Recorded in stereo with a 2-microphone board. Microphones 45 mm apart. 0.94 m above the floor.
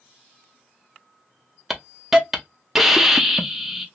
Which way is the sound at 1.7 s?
10° right (ahead or behind).